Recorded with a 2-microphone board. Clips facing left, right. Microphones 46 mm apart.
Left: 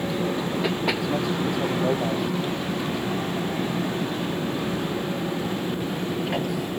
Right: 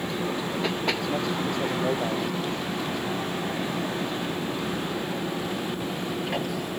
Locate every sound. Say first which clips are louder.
0.0 s an aircraft: left 3 dB; 5° left (ahead or behind)